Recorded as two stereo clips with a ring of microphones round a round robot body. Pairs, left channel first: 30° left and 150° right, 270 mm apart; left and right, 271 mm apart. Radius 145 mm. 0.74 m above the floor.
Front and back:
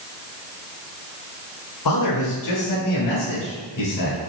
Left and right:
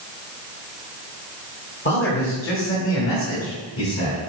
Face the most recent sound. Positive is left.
turn(degrees=50)